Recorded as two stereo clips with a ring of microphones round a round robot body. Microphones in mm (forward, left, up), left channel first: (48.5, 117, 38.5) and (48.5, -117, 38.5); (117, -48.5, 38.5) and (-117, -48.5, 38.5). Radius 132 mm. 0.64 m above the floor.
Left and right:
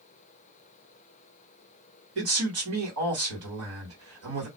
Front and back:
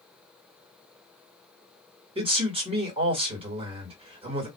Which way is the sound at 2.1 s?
115° right.